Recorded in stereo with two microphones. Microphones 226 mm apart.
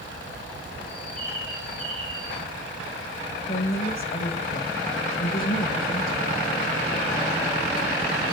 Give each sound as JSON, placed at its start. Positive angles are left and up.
{"t": 0.9, "sound": "a bird", "side_deg": -65, "distance_m": 6.0}
{"t": 3.5, "sound": "a woman speaking", "side_deg": 40, "distance_m": 1.9}